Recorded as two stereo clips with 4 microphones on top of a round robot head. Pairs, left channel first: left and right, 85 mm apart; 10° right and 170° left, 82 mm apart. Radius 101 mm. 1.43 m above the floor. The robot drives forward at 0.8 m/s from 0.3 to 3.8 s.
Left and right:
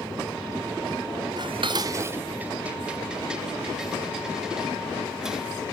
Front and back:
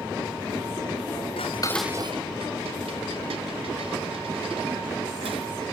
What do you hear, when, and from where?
1.4 s dishes clattering: 35° right, 0.6 m; by 5.5 s 170° right, 1.7 m